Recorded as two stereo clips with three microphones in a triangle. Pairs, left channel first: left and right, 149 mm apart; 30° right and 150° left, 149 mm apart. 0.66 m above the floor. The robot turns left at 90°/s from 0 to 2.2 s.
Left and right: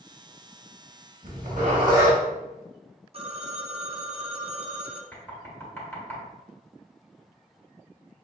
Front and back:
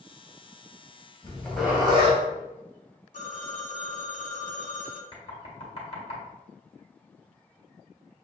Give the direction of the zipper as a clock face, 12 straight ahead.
3 o'clock.